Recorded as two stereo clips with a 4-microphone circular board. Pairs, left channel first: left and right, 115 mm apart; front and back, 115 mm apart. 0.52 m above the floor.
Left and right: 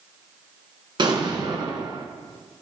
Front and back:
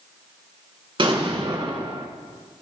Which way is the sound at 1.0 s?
135° right.